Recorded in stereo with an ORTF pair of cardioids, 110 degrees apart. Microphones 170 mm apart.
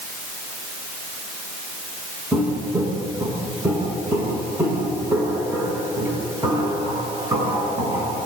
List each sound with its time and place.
2.3 s footsteps: 10° right, 7.5 m; by 8.2 s 15° right, 12.5 m